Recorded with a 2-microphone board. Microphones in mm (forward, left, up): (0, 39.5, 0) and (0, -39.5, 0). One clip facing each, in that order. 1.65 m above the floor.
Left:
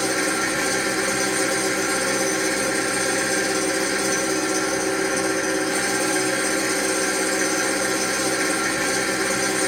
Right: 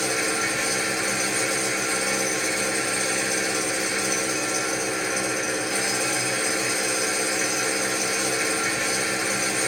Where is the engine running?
35° left (ahead or behind), 1.9 m.